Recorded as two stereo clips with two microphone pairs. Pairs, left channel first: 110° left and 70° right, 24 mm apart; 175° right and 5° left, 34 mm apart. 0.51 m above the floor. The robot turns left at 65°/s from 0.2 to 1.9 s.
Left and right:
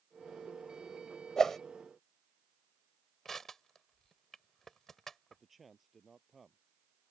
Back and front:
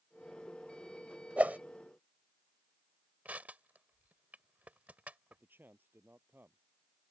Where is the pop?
No pop in this recording.